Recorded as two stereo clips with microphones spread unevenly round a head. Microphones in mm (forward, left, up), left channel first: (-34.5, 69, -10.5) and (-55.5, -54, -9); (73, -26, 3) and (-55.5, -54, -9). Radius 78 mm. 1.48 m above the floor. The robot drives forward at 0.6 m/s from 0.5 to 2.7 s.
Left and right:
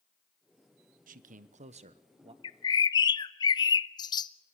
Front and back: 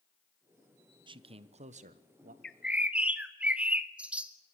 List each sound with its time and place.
1.1 s a man speaking: 115° right, 0.8 m; by 2.3 s 145° right, 1.3 m
2.4 s a bird: 85° left, 0.6 m; by 4.3 s 110° left, 0.6 m